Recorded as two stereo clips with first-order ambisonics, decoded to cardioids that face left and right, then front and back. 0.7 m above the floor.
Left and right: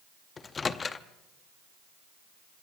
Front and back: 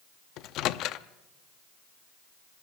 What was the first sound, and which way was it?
A microwave, 20° left.